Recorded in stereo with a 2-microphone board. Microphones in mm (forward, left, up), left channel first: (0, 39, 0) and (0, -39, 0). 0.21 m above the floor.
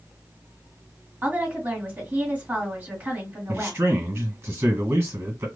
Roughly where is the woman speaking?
Right.